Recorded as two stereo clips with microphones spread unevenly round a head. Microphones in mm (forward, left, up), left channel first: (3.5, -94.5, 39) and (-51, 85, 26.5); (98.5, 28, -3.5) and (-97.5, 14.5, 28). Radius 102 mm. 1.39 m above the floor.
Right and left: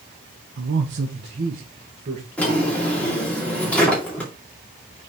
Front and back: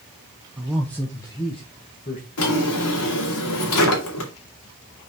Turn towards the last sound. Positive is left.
turn(degrees=10)